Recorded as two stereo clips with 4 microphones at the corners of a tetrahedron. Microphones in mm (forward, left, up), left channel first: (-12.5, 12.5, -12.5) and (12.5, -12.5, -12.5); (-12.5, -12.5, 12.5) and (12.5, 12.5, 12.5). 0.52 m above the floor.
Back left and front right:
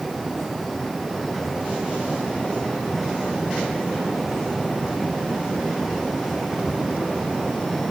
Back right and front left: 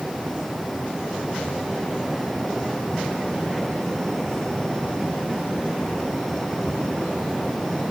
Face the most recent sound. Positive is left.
No sound to turn to.